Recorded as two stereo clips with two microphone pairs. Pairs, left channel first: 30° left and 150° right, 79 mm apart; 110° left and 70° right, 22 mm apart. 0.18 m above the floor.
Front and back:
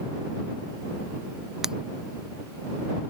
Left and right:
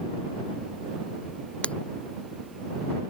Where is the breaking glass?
125° left.